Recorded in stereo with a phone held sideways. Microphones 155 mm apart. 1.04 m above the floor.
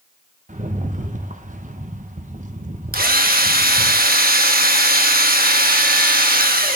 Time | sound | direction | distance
0.5 | a rattle | 55° right (ahead or behind) | 0.9 m
2.9 | a drill | 75° right (ahead or behind) | 1.1 m